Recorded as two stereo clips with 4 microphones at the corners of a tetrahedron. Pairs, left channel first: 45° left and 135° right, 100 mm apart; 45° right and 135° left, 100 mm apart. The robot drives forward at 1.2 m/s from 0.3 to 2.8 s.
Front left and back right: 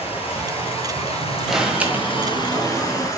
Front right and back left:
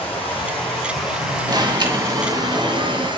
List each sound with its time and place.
0.0 s running water: 35° left, 3 m; by 3.2 s 105° left, 1.8 m
1.5 s an alarm: 140° left, 1.1 m; by 3.1 s 165° left, 2.5 m